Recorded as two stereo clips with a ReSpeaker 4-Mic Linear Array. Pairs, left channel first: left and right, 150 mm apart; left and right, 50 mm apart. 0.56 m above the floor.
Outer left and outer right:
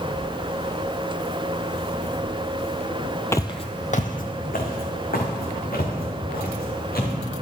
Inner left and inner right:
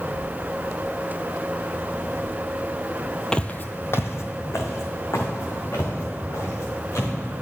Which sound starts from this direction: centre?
Footsteps, at 3.3 s.